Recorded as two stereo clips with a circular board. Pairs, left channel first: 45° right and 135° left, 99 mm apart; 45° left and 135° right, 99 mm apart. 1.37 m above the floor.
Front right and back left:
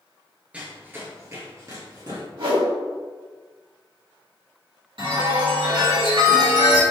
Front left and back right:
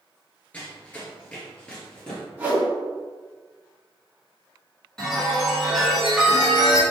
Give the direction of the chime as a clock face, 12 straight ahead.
8 o'clock.